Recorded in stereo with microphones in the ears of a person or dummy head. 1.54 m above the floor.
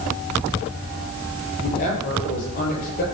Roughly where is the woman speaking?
Left.